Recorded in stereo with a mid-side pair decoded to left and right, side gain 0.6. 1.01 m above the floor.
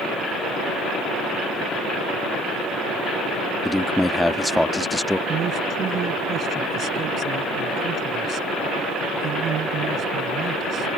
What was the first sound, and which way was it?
A man speaking, 5° left.